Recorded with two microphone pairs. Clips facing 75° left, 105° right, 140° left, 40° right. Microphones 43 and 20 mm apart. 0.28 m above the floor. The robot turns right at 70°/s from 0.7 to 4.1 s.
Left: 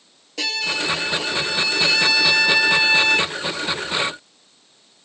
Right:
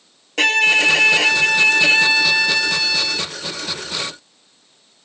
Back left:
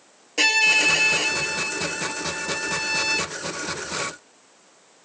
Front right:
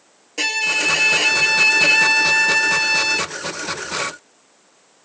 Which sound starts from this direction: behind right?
A violin, at 0.4 s.